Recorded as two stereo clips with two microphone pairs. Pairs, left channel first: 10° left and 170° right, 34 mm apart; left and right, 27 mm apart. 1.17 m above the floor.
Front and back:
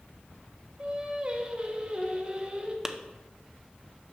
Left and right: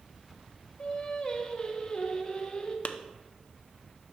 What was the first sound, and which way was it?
Singing, 140° left.